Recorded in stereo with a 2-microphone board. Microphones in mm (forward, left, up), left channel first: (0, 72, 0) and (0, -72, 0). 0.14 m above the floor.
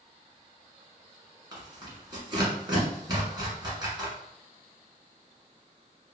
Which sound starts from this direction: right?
Tearing paper, at 1.5 s.